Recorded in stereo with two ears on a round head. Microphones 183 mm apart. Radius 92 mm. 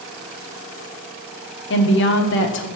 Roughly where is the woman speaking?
Left.